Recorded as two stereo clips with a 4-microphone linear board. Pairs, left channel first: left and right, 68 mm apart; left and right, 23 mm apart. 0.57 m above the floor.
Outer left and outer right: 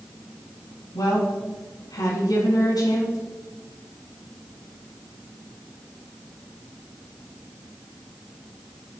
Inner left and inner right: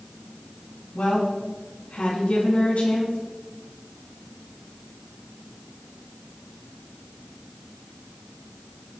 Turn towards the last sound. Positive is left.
turn(degrees=80)